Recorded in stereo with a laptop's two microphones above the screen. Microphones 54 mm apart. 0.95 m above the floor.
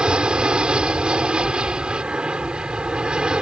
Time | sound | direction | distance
0.0 | an aircraft | 15° right (ahead or behind) | ?